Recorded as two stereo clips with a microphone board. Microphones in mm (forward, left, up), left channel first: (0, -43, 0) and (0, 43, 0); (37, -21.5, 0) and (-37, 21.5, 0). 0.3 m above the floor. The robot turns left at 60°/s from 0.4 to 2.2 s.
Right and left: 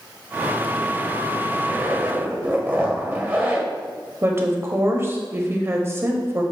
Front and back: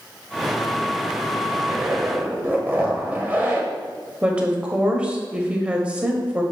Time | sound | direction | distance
1.6 | a zipper | 145° left | 1.2 m
4.2 | a woman speaking | 90° left | 1.0 m